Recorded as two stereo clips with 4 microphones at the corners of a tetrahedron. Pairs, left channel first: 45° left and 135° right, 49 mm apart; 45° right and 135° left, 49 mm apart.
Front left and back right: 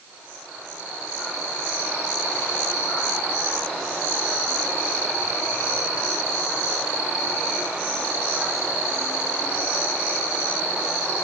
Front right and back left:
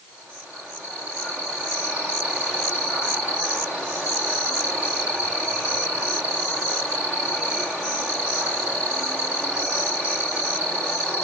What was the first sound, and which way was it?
Only background noise.